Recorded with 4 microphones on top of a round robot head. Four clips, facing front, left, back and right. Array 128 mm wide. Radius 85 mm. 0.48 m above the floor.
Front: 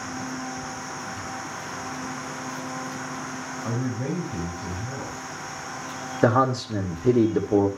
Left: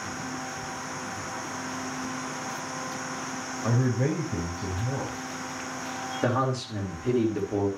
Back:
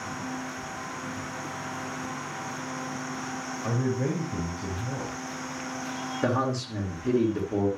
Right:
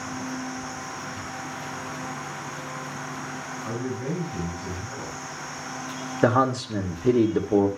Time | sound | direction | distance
3.6 | a man speaking | 115° left | 4 m
6.2 | a man speaking | 40° right | 1.6 m